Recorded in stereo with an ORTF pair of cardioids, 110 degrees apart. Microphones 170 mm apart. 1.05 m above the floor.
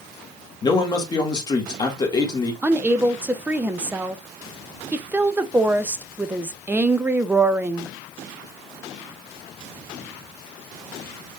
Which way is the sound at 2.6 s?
10° right.